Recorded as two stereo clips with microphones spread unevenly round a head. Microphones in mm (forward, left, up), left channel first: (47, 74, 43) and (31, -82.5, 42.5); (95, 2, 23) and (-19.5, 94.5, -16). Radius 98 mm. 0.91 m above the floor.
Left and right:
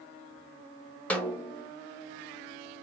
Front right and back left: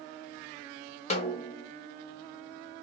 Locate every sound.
1.1 s a snare drum: 5° left, 0.7 m